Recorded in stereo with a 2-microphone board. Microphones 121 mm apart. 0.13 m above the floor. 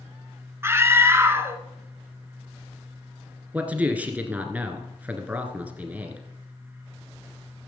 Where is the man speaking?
15° right (ahead or behind), 1.6 m.